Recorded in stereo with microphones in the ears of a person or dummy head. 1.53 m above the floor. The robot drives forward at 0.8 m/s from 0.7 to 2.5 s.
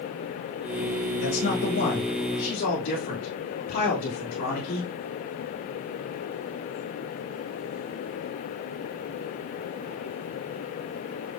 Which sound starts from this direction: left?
A man speaking, at 1.2 s.